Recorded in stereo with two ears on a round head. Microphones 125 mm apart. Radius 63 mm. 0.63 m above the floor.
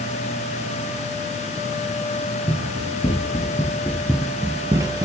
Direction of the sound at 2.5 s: 35° left (ahead or behind).